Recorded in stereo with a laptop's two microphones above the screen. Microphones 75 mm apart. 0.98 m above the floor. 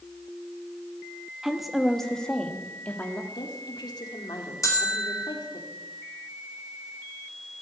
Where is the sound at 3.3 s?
75° left (ahead or behind), 2.5 m.